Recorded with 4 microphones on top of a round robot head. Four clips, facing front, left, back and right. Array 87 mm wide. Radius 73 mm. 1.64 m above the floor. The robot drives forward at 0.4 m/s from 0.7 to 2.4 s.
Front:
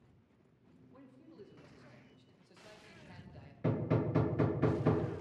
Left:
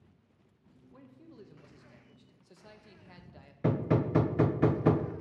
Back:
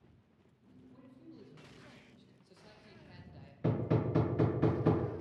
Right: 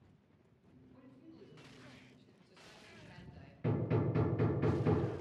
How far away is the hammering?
About 1.0 m.